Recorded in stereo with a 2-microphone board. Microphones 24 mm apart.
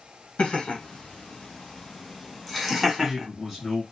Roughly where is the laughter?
Left.